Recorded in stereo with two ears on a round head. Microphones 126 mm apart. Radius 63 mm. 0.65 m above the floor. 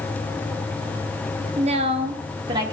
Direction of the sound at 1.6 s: 50° right (ahead or behind).